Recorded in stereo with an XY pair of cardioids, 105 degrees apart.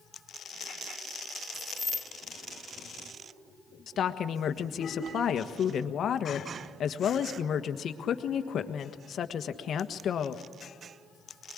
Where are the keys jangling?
20° left, 1.9 m.